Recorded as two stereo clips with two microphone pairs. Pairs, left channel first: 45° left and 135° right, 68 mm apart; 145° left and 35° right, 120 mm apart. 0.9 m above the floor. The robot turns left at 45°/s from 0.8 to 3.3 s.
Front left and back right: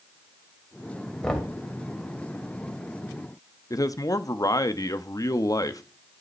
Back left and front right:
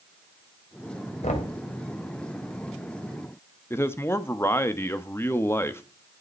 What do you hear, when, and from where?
1.2 s knocking: 130° left, 3 m; by 1.6 s 115° left, 3 m
3.7 s a man speaking: 75° left, 1.2 m